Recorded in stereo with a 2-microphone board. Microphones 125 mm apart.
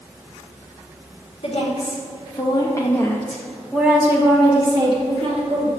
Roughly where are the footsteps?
No footsteps in this recording.